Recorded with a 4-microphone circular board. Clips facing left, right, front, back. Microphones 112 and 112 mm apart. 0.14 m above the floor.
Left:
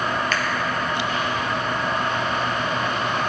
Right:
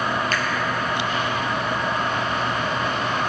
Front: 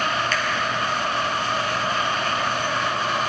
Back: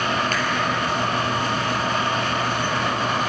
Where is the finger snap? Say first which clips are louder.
Even, back 1 dB; 135° right, 2.5 m.